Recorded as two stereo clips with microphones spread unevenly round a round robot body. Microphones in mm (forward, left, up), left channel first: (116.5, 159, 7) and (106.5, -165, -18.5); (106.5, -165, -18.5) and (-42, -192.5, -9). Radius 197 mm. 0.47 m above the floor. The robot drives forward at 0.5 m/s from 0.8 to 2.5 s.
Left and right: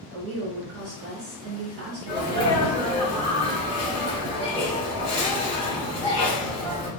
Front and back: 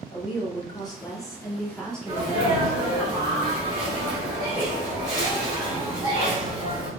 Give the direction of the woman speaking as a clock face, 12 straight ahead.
2 o'clock.